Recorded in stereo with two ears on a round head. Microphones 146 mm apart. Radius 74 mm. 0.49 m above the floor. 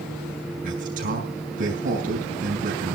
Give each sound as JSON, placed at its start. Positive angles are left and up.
{"t": 0.6, "sound": "a man speaking", "side_deg": -50, "distance_m": 6.0}